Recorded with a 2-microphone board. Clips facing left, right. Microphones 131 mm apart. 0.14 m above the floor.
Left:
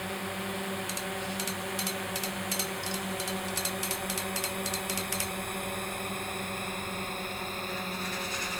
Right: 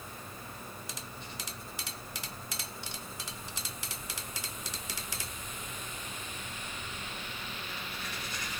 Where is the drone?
80° left; by 8.6 s 40° left (ahead or behind).